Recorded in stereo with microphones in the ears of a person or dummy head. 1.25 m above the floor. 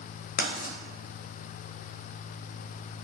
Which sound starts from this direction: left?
Writing, at 0.4 s.